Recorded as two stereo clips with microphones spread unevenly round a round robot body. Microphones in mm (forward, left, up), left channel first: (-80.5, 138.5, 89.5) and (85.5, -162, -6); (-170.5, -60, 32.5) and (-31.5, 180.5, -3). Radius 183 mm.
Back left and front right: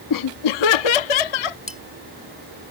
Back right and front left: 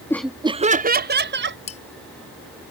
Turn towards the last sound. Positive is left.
turn(degrees=-150)